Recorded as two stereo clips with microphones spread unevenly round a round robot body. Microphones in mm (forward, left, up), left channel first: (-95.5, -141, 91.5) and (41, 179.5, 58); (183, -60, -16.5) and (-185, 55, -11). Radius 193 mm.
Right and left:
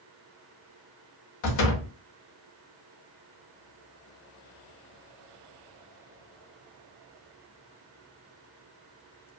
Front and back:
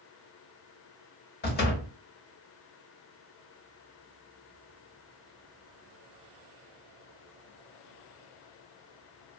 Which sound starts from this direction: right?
A door slam, at 1.4 s.